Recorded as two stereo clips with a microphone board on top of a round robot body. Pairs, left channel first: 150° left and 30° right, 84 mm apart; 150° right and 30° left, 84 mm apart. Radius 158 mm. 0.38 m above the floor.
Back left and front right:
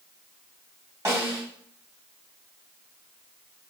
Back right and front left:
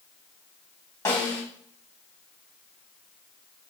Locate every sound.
1.1 s a snare drum: 90° right, 1.8 m